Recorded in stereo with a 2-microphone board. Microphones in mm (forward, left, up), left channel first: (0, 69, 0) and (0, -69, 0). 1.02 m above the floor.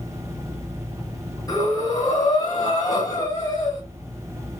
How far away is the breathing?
About 1.7 m.